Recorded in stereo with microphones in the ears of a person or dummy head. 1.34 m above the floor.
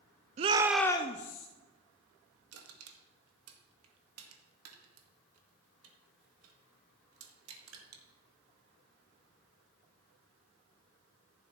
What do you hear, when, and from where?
0.4 s a shout: 35° right (ahead or behind), 0.6 m; by 1.5 s 50° left (ahead or behind), 0.8 m
2.5 s crushing: 85° right, 1.8 m